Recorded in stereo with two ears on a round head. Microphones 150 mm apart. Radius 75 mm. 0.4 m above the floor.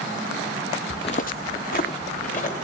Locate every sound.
0.9 s footsteps: 15° left (ahead or behind), 0.6 m; by 2.5 s 45° left (ahead or behind), 2 m